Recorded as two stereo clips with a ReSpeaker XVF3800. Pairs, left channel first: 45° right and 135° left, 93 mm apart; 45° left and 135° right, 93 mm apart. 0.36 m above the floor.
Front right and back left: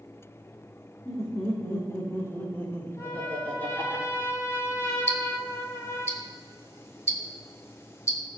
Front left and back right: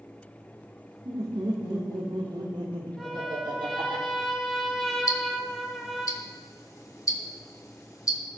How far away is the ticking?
About 1.4 m.